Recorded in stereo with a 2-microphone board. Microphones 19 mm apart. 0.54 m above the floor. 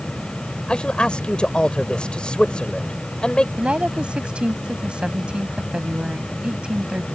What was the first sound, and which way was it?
A man speaking, 65° left (ahead or behind).